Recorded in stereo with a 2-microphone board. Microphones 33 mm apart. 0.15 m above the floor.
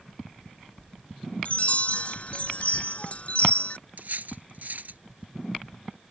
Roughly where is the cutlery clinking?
Right.